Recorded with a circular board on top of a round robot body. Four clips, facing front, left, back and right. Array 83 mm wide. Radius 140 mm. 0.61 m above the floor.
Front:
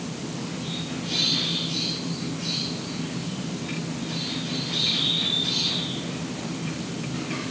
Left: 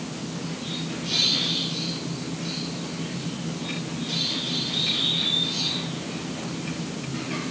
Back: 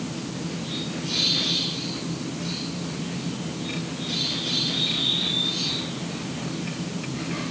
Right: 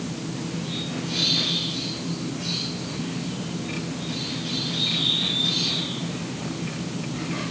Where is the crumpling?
No crumpling in this recording.